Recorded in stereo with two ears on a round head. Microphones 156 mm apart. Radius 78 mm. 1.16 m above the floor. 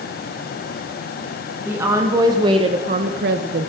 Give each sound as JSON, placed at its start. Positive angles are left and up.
{"t": 1.6, "sound": "a woman speaking", "side_deg": -15, "distance_m": 2.5}